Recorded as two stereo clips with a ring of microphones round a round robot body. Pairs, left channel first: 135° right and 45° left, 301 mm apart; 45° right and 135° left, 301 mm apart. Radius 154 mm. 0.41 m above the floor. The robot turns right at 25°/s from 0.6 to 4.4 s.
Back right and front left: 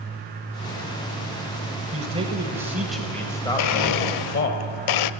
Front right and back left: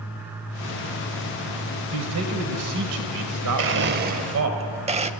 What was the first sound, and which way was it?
A man speaking, 110° left.